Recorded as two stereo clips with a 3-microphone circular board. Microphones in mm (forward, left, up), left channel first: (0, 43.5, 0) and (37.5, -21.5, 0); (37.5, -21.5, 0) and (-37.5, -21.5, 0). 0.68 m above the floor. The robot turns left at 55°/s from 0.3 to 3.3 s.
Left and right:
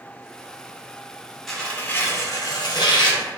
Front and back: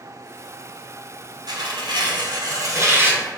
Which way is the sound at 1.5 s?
155° right.